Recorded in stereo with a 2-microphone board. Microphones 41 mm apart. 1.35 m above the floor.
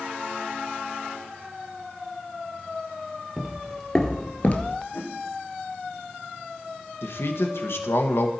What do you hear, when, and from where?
3.4 s footsteps: 10° right (ahead or behind), 1.8 m; by 4.8 s 40° left (ahead or behind), 1.7 m
4.9 s a whoosh: 70° left (ahead or behind), 2.5 m
7.0 s a man speaking: 70° left (ahead or behind), 1.6 m